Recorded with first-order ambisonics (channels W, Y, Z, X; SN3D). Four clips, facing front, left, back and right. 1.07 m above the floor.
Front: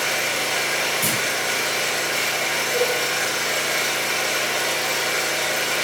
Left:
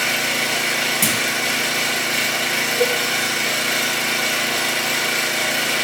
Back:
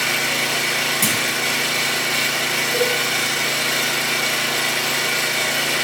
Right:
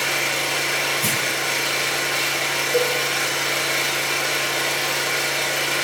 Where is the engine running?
125° left, 6 m.